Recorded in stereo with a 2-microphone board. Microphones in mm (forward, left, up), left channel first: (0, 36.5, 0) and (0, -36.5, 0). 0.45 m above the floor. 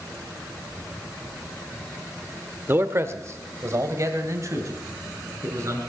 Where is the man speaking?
30° right (ahead or behind), 1.2 m; by 5.8 s 45° right (ahead or behind), 4.5 m.